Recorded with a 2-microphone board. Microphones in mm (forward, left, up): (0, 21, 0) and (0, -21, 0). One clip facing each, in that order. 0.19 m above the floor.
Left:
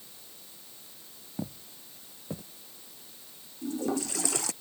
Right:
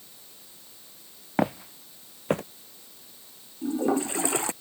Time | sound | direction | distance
1.4 | footsteps | 80° right | ?
3.6 | a toilet flushing | 30° right (ahead or behind) | ?